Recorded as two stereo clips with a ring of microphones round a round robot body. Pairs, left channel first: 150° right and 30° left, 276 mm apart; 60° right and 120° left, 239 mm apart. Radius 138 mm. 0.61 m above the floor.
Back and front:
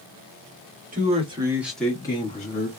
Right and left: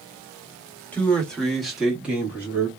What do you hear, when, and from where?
0.9 s a man speaking: 20° left, 1.2 m; by 2.7 s 165° right, 1.3 m